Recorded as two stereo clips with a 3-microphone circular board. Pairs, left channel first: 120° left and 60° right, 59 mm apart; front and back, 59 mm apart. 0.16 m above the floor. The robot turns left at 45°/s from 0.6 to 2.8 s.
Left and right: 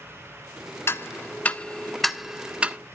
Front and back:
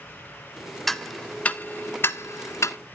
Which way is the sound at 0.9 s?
85° left.